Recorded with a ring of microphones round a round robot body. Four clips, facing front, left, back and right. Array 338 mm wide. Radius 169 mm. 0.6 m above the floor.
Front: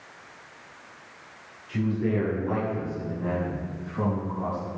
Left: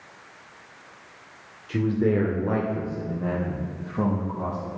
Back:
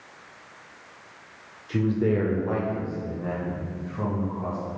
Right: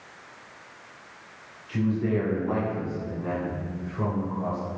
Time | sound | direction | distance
1.7 | a man speaking | 140° left | 2 m